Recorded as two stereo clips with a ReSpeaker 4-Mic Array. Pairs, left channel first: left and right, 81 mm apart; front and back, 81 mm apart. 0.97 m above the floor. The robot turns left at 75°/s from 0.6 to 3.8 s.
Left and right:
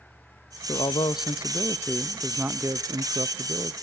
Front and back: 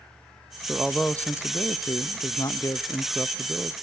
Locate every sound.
0.7 s a man speaking: 105° left, 0.6 m; by 3.7 s 120° right, 0.6 m